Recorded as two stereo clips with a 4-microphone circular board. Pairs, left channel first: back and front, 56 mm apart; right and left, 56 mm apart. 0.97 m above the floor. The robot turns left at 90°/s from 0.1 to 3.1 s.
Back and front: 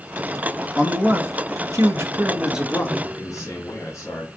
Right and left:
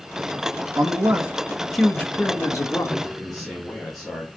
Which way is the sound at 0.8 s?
85° left.